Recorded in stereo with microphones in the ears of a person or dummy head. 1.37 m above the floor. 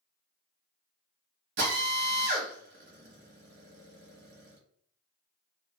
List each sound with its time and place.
1.6 s a drill: 60° right (ahead or behind), 1.2 m